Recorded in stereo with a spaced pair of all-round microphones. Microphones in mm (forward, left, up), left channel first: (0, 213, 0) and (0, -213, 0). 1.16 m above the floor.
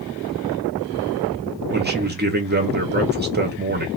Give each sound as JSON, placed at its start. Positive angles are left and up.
{"t": 1.7, "sound": "a man speaking", "side_deg": -25, "distance_m": 0.7}